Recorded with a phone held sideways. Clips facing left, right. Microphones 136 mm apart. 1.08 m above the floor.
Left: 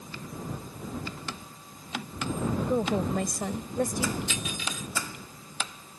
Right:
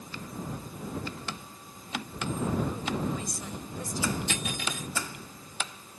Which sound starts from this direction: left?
A woman speaking, at 2.6 s.